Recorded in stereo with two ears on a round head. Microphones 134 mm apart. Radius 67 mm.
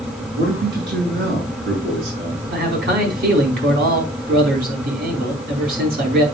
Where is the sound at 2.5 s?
65° right (ahead or behind), 3.5 m.